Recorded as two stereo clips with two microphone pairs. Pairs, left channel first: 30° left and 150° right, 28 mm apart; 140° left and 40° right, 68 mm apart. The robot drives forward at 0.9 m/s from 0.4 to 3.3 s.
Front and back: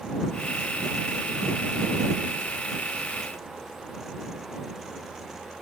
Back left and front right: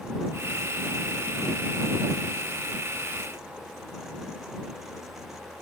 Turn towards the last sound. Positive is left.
No sound to turn to.